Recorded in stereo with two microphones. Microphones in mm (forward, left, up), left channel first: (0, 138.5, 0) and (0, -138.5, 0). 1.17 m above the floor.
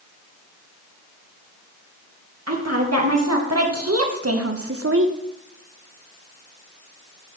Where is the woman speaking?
60° right (ahead or behind), 2.5 m; by 5.2 s 45° right (ahead or behind), 0.8 m.